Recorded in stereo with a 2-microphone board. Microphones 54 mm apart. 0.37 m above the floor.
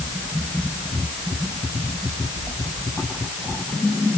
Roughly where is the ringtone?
I don't hear a ringtone.